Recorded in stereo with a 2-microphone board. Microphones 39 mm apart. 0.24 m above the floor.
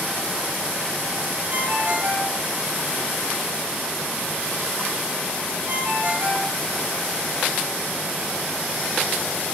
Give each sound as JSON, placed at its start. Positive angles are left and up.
{"t": 1.5, "sound": "a ringtone", "side_deg": -45, "distance_m": 3.5}